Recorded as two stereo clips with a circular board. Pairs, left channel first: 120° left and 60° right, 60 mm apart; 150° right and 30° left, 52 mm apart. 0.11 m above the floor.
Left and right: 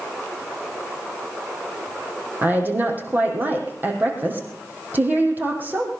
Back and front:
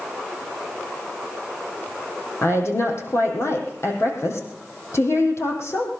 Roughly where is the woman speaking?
Behind right.